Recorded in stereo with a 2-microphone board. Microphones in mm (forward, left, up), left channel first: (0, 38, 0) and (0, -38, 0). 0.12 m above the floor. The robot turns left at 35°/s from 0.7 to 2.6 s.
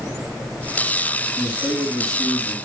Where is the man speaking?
105° right, 5.5 m; by 2.5 s 145° right, 5.5 m.